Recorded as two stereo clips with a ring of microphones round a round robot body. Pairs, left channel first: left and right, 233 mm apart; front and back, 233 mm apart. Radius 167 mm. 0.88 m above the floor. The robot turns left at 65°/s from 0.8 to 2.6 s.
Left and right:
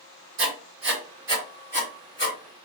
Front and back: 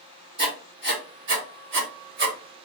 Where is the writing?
110° right, 1.5 m; by 2.4 s 150° left, 1.5 m.